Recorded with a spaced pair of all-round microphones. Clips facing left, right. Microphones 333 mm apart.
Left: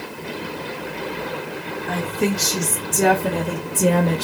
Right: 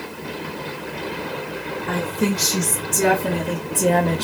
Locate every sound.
1.9 s a woman speaking: 10° right (ahead or behind), 1.9 m; by 4.2 s 15° left (ahead or behind), 0.7 m